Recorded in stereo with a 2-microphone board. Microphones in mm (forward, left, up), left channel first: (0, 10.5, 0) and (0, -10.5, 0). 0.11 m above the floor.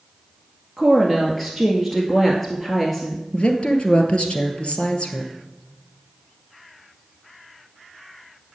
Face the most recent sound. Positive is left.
turn(degrees=50)  # may be behind; listen again after turning